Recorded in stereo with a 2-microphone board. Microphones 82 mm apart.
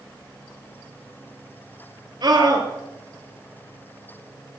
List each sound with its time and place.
2.2 s a scream: 65° right (ahead or behind), 4 m